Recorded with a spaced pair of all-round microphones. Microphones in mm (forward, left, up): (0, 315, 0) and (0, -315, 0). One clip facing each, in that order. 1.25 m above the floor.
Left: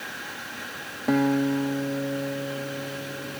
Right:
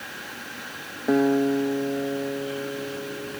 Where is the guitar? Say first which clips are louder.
Right 2 dB; 30° left (ahead or behind).